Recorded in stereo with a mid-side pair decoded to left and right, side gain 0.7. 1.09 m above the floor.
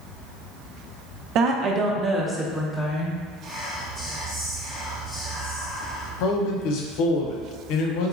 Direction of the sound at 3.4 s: 5° right.